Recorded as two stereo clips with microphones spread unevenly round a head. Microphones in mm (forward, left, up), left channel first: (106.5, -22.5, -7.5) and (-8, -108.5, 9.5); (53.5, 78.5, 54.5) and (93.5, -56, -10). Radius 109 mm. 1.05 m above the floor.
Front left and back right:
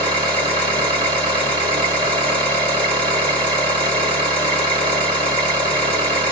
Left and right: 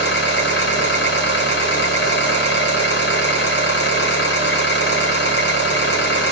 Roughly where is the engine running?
Behind left.